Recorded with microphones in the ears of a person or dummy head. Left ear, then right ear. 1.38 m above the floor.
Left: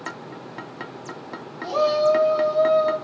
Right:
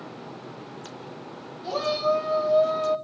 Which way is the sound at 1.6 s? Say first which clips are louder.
Left 6 dB; 75° left (ahead or behind).